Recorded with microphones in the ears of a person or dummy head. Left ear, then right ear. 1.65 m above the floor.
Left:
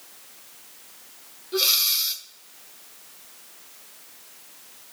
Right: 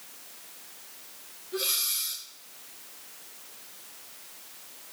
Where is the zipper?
No zipper in this recording.